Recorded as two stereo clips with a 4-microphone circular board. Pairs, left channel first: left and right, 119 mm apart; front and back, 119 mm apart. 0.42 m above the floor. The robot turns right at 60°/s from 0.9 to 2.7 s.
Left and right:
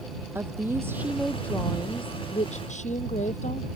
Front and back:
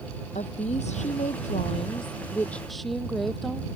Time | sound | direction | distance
0.3 | a woman speaking | 20° right | ?